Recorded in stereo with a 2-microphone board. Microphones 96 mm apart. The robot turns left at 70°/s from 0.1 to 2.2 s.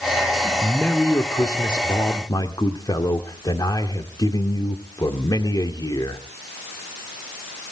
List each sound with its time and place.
0.6 s a man speaking: 175° left, 1.8 m; by 6.2 s 65° left, 1.8 m